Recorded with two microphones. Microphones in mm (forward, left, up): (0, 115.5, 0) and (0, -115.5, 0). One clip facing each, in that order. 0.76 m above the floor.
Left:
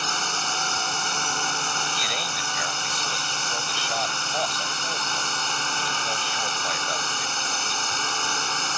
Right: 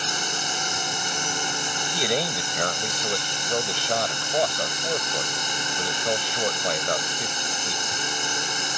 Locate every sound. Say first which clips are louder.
0.0 s a drone: right 1 dB; 15° right (ahead or behind)
1.9 s a man speaking: right 9 dB; 55° right (ahead or behind)